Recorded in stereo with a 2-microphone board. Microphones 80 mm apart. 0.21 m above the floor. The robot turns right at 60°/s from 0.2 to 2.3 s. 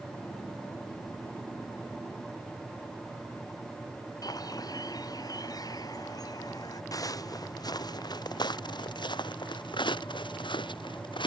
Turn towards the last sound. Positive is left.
turn(degrees=85)